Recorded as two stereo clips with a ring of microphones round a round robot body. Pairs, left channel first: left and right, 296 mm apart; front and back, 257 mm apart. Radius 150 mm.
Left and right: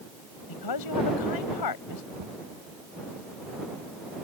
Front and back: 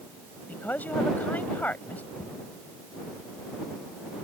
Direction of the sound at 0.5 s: 85° left.